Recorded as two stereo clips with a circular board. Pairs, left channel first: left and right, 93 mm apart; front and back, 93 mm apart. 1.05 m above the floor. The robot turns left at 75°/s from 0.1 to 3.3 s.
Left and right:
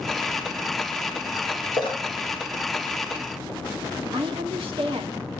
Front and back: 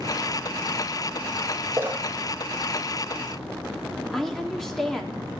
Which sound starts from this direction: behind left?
A splash, at 1.7 s.